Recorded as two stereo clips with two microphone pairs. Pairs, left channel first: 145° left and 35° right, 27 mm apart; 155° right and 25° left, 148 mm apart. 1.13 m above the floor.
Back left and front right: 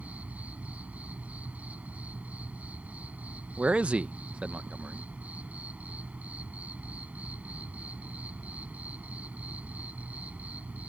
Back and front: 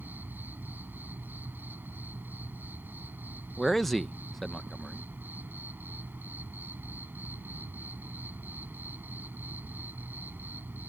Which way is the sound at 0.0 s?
55° right.